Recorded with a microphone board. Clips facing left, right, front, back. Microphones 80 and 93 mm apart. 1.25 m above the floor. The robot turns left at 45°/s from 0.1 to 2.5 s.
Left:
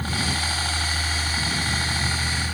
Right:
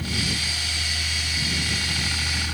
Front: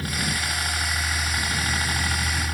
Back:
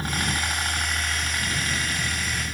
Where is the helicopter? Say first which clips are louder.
Left 2 dB, back 1 dB; 125° left; by 2.5 s 5° left.